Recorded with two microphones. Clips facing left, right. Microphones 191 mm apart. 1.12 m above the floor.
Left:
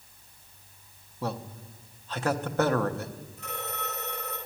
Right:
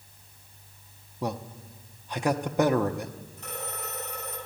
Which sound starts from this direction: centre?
A man speaking, at 1.2 s.